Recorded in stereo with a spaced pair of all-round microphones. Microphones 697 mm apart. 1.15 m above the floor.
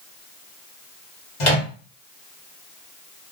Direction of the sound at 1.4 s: 80° left.